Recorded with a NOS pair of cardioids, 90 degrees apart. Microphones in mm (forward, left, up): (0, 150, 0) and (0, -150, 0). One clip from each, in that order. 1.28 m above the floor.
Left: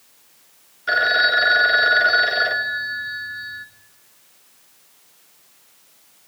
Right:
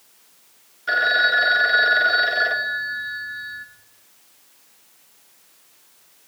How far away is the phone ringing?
About 1.2 m.